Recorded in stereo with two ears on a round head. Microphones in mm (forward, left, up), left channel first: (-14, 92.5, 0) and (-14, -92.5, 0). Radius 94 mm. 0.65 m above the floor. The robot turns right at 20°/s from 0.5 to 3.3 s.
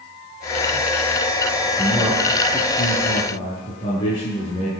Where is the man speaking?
10° right, 8 m; by 4.7 s 20° left, 8 m.